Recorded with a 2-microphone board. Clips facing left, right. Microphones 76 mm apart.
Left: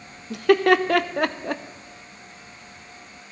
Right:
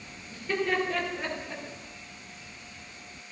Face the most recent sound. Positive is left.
turn(degrees=85)